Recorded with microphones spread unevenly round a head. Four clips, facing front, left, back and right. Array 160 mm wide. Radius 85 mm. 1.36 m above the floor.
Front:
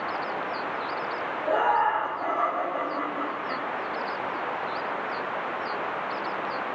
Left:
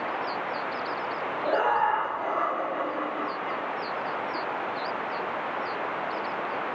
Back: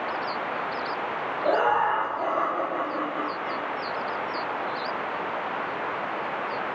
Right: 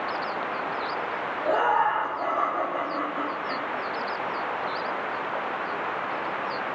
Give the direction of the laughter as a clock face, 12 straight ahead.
6 o'clock.